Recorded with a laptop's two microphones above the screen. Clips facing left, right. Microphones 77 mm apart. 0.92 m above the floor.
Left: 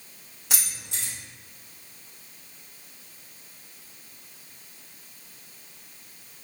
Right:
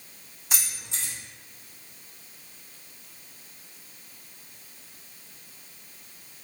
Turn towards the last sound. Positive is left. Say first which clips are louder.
# even
turn(degrees=85)